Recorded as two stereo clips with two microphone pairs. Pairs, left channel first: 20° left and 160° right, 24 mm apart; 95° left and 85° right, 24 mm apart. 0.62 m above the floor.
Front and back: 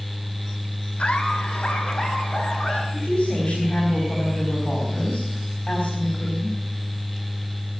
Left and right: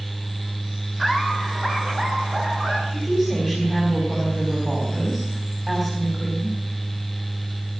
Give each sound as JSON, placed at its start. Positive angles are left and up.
{"t": 1.0, "sound": "laughter", "azimuth_deg": -20, "distance_m": 3.5}
{"t": 2.9, "sound": "a woman speaking", "azimuth_deg": -30, "distance_m": 4.5}